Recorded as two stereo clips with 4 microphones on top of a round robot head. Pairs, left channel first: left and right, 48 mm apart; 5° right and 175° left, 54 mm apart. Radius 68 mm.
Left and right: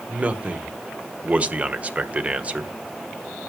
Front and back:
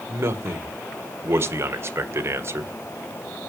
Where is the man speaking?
150° right, 1.7 m.